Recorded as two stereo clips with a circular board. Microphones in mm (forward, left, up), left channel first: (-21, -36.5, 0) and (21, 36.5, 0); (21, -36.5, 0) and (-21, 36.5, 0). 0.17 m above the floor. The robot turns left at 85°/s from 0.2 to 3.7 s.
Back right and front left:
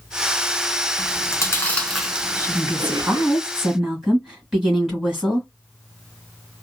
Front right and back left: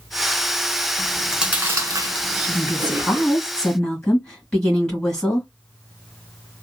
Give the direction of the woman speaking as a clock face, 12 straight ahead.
8 o'clock.